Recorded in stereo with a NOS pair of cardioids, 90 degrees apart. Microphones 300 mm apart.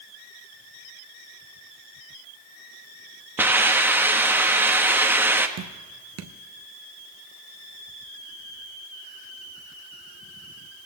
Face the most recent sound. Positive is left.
turn(degrees=-60)